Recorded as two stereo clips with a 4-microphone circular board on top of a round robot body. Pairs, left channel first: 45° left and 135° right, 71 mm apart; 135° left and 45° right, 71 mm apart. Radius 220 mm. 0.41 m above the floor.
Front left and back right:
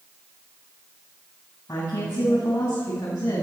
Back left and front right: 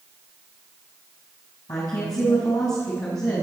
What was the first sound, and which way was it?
A woman speaking, 95° left.